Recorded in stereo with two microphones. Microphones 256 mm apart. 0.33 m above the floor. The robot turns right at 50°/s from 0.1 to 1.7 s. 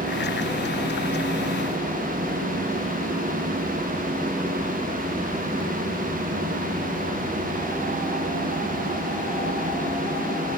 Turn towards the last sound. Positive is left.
No sound to turn to.